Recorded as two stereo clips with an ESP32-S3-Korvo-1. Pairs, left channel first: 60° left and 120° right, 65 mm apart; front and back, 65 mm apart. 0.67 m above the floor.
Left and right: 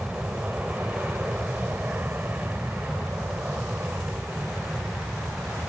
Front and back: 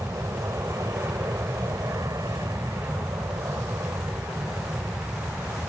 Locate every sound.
0.0 s an aircraft: straight behind; by 5.7 s 170° right